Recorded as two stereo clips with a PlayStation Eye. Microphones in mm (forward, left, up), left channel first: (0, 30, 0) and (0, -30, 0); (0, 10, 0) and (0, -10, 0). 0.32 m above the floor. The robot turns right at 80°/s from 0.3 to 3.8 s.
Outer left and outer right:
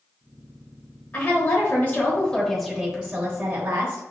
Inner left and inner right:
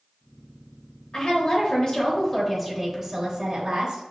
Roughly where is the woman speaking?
Centre.